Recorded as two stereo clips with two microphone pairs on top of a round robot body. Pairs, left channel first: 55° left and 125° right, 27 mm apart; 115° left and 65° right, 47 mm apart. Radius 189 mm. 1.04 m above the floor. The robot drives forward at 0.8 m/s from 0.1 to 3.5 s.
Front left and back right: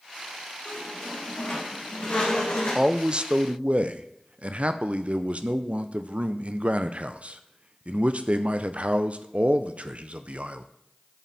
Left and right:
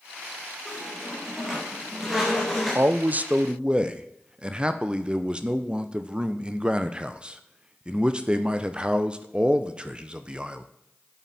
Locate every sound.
0.7 s a squeak: 15° left, 3.5 m; by 2.9 s 25° left, 1.9 m
2.8 s a man speaking: 60° right, 0.8 m; by 10.7 s 125° right, 0.8 m